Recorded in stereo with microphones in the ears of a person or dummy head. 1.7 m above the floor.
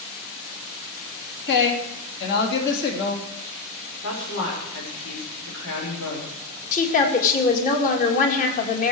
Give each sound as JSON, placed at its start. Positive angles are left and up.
{"t": 1.5, "sound": "a woman speaking", "side_deg": 60, "distance_m": 3.0}
{"t": 4.0, "sound": "a woman speaking", "side_deg": 70, "distance_m": 5.5}
{"t": 6.7, "sound": "a woman speaking", "side_deg": 40, "distance_m": 2.5}